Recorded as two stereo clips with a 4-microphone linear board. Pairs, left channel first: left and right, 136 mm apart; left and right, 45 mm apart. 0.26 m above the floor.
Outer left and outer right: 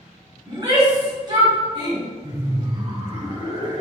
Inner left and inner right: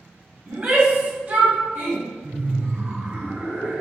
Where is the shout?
35° right (ahead or behind), 1.8 m.